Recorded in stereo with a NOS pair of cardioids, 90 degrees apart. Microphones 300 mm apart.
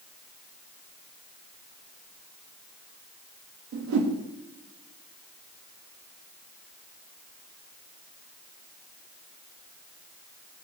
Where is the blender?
No blender in this recording.